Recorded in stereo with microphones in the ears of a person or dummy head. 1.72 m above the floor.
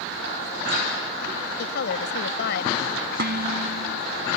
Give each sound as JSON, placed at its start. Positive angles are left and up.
{"t": 1.6, "sound": "a woman speaking", "side_deg": 65}
{"t": 3.2, "sound": "dishes clattering", "side_deg": -55}